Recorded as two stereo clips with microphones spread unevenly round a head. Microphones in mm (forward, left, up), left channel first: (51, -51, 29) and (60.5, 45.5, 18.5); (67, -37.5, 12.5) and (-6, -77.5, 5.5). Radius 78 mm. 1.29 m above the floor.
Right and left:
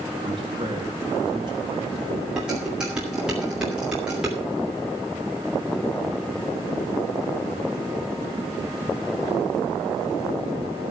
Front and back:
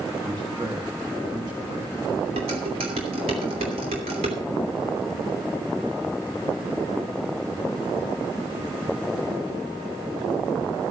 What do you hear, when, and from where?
0.2 s a man speaking: 145° left, 1.8 m
2.4 s dishes clattering: 170° left, 2.5 m